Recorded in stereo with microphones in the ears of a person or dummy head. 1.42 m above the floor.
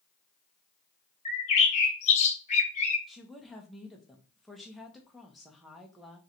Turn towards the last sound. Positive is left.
turn(degrees=-5)  # may be behind; listen again after turning